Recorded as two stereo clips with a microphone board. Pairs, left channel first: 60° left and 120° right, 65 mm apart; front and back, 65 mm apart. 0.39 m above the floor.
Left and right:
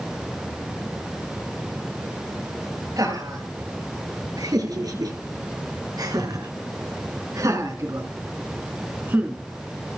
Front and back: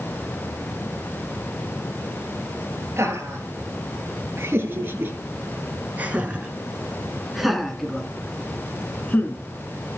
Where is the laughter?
135° right, 6.5 m; by 10.0 s 50° right, 4 m.